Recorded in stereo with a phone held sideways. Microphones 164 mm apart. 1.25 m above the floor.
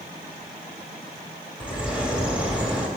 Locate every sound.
1.6 s a bird: 5° right (ahead or behind), 1.6 m